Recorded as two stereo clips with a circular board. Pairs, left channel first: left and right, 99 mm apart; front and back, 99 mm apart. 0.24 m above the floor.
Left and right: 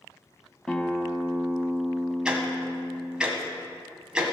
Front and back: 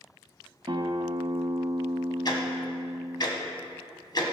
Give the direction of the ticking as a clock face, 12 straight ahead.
12 o'clock.